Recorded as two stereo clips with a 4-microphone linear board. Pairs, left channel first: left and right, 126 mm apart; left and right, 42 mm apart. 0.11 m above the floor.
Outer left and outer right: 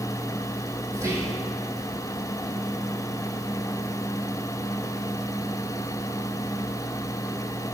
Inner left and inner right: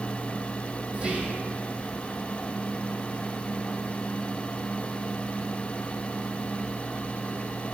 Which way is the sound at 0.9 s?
25° right (ahead or behind).